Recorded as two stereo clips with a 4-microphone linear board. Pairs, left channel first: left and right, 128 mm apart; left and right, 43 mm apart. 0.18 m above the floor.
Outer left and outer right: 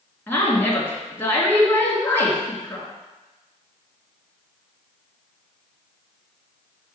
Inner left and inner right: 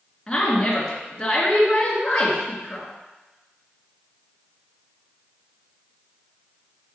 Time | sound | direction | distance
0.3 | a woman speaking | 20° left (ahead or behind) | 2.5 m